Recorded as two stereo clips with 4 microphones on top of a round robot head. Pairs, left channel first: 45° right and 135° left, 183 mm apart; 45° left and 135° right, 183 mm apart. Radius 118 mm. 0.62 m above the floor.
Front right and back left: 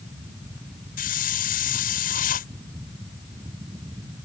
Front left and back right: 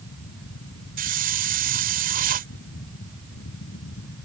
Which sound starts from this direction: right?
A hiss, at 1.0 s.